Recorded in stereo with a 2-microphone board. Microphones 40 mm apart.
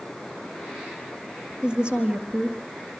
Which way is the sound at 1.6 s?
20° right (ahead or behind).